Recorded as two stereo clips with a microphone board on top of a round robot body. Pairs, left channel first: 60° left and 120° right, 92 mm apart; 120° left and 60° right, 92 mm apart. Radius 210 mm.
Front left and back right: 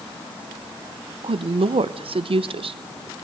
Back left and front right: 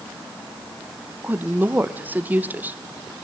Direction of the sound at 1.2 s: 130° right.